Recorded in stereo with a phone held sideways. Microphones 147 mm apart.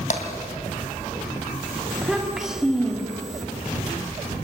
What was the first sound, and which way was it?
Tapping, 60° left (ahead or behind).